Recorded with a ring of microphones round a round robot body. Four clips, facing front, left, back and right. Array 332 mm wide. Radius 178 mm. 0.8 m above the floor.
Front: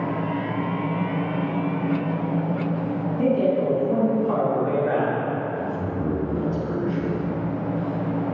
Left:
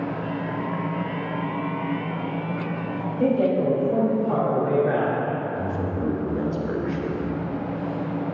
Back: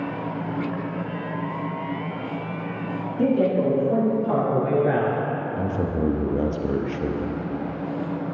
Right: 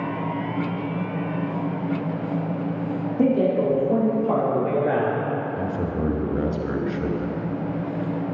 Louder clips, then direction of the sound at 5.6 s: Right 1 dB, back 2 dB; 150° right.